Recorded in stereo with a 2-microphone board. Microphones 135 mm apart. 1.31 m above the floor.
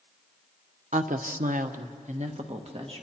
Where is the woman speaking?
60° right (ahead or behind), 0.9 m; by 3.0 s 40° right (ahead or behind), 1.9 m.